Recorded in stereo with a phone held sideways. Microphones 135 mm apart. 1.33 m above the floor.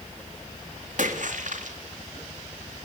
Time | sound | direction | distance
1.0 | a splash | 70° right (ahead or behind) | 3 m